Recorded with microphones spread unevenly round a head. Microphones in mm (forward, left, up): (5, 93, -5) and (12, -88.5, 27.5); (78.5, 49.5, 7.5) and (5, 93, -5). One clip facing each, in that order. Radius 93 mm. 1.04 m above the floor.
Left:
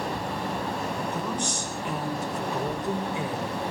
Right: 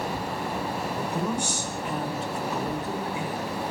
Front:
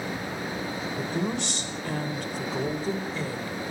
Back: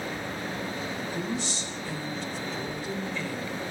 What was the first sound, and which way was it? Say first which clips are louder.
A woman speaking: right 2 dB, front 5 dB; 10° right.